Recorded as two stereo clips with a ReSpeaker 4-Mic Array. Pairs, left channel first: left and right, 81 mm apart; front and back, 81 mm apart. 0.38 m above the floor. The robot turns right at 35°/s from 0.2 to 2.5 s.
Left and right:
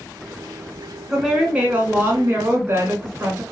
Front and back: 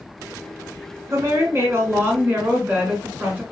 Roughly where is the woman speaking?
Behind.